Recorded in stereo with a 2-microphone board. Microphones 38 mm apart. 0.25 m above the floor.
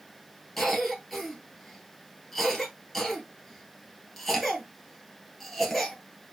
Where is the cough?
Centre (ahead or behind), 2 m.